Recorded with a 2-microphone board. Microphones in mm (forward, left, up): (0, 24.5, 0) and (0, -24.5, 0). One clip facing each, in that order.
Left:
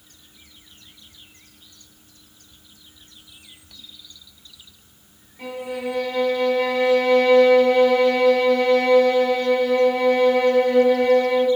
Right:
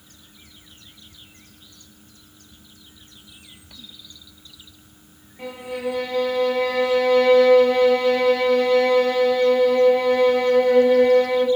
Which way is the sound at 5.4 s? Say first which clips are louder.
Even; 20° right (ahead or behind).